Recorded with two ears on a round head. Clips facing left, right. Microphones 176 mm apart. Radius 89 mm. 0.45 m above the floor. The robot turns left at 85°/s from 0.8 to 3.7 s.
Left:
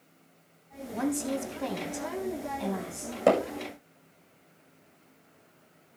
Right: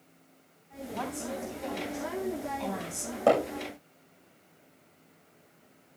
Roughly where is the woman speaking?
Behind left.